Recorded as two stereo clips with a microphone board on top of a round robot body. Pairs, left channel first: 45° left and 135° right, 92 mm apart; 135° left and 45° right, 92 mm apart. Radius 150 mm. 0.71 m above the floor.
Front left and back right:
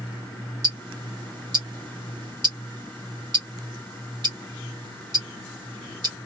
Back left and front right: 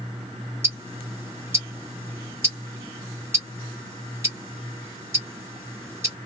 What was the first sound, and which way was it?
Ticking, 105° right.